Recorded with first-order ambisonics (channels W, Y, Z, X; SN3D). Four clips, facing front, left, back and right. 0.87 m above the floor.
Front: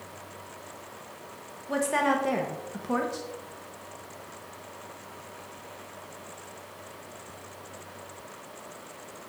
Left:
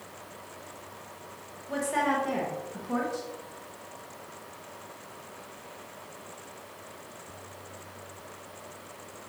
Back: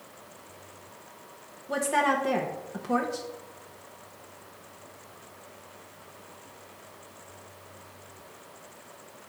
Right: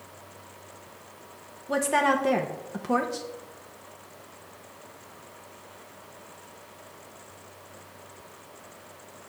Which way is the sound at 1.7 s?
85° right.